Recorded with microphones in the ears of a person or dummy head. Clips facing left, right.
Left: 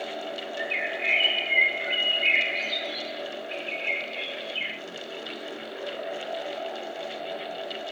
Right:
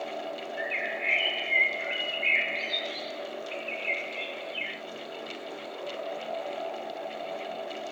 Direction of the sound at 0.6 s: 50° left (ahead or behind).